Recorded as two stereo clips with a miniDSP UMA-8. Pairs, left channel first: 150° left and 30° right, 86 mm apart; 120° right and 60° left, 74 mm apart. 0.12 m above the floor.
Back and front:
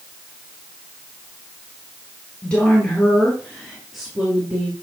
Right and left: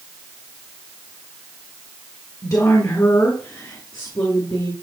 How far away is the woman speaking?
About 2.5 m.